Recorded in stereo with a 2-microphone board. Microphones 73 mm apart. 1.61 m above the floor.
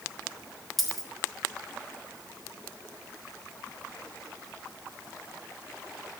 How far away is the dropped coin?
About 5.5 m.